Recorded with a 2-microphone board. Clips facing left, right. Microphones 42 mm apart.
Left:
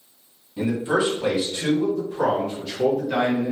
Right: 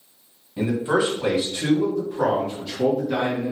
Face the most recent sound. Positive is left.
turn(degrees=5)  # may be behind; listen again after turning